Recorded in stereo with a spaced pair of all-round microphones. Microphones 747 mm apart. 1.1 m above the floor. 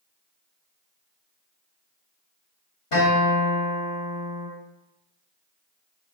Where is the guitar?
45° left (ahead or behind), 1.8 m.